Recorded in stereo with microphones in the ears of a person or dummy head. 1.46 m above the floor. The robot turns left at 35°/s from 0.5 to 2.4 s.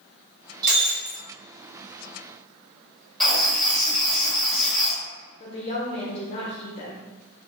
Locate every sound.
0.6 s breaking glass: 50° right (ahead or behind), 1.3 m; by 1.2 s 30° right (ahead or behind), 1.3 m
3.2 s writing: centre (ahead or behind), 0.8 m
5.4 s a woman speaking: 30° left (ahead or behind), 0.7 m